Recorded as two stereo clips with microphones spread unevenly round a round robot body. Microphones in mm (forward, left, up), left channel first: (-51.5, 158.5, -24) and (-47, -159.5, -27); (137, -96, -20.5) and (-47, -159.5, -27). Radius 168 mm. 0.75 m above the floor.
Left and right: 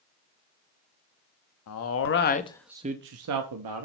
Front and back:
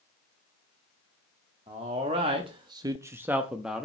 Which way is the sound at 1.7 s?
130° left.